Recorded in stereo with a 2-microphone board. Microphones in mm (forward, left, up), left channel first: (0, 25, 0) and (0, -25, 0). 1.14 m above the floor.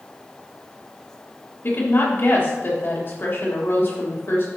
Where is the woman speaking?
45° left (ahead or behind), 3 m.